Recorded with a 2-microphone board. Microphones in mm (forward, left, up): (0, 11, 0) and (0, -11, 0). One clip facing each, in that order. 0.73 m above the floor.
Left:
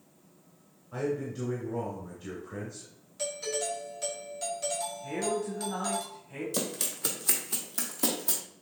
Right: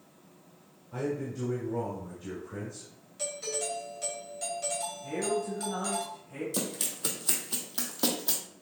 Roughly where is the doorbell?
Centre.